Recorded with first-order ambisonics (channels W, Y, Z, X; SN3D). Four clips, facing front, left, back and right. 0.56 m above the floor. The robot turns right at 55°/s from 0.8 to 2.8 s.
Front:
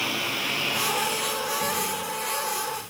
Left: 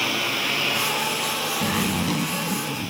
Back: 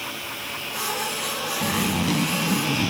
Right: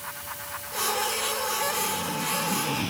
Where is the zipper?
115° left; by 2.9 s straight behind.